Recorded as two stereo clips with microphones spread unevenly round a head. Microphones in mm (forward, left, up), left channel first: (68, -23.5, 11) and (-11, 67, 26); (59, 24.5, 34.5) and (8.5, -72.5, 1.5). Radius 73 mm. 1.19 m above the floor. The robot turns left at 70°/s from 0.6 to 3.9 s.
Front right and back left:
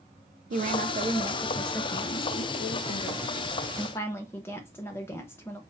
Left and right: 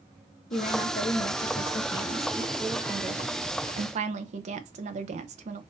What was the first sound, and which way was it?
A woman speaking, 110° left.